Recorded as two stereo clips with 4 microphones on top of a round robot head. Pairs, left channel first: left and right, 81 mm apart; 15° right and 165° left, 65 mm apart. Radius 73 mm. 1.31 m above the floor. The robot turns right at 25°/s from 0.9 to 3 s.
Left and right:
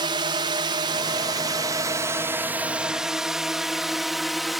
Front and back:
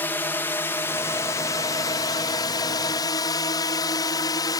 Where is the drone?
75° right; by 4.6 s straight ahead.